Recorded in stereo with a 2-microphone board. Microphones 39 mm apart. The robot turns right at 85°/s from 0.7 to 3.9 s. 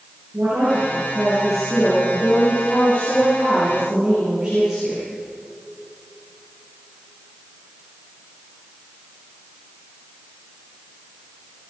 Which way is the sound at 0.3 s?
80° right.